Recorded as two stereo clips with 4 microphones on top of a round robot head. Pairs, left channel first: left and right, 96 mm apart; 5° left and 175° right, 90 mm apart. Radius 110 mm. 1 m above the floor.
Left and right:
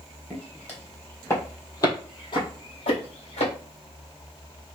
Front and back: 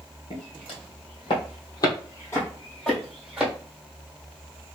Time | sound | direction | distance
0.3 | footsteps | 10° left | 1.9 m